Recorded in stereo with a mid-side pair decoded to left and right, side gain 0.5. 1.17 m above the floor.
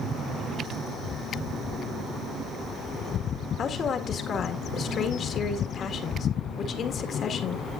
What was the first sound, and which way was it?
A woman speaking, 50° left.